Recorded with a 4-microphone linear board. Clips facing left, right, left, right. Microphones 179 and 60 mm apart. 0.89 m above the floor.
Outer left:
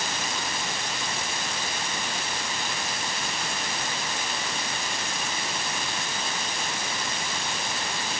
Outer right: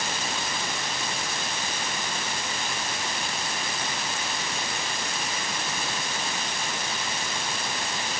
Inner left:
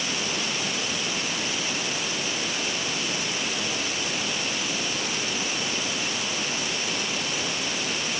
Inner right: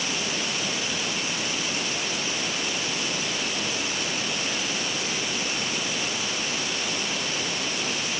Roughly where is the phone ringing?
I don't hear a phone ringing.